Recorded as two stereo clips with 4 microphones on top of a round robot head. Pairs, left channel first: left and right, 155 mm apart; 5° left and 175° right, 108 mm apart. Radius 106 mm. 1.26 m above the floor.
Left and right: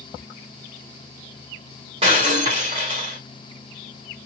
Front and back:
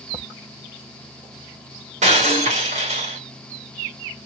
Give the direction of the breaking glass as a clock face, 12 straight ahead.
5 o'clock.